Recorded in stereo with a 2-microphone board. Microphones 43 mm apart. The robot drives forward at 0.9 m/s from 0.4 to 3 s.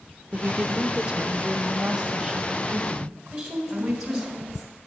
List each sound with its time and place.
0.3 s a woman speaking: 30° right (ahead or behind), 0.9 m; by 4.3 s 10° right (ahead or behind), 2.5 m
3.3 s a woman speaking: 10° right (ahead or behind), 3 m